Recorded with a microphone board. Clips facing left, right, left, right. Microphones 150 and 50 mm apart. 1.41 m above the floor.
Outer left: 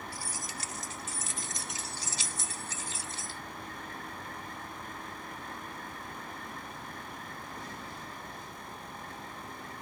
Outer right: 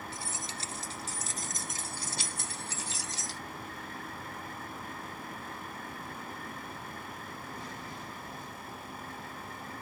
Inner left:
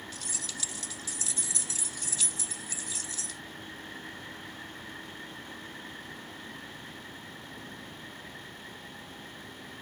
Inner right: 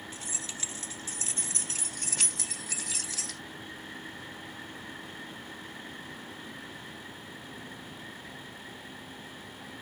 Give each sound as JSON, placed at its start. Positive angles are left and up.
{"t": 0.1, "sound": "keys jangling", "side_deg": -25}